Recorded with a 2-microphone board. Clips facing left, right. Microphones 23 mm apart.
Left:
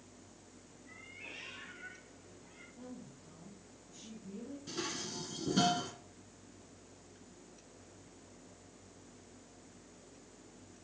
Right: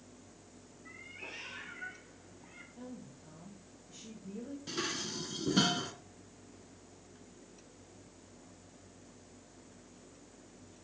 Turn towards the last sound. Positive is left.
turn(degrees=-25)  # may be behind; listen again after turning